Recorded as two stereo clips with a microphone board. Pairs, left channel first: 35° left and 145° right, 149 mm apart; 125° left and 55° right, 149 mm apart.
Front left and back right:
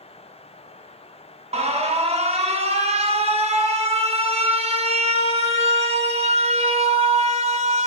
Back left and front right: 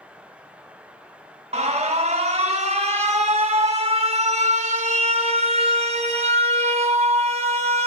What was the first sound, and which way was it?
An alarm, 100° right.